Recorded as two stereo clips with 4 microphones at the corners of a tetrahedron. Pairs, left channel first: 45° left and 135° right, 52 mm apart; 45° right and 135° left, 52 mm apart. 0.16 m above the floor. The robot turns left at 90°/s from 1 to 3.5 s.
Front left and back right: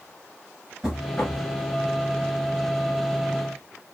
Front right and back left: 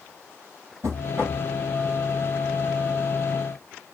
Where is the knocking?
145° left, 2.0 m; by 1.4 s 105° left, 2.0 m.